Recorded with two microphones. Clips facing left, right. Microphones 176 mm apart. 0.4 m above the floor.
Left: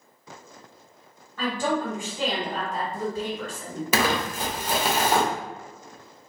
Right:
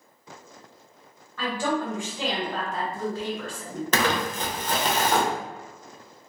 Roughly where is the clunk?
I don't hear a clunk.